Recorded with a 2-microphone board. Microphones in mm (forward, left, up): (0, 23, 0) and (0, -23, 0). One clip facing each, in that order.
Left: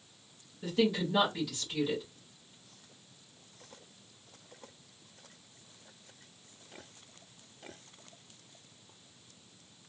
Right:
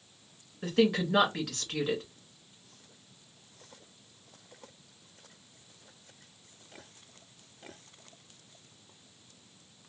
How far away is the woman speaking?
About 2 m.